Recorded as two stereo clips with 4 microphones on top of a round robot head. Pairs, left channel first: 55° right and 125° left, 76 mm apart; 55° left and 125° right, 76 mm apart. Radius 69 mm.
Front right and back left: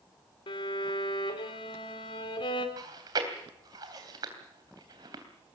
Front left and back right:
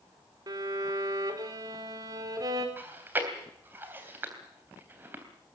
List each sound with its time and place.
0.5 s a violin: 80° right, 3 m
2.8 s chewing: 170° left, 3 m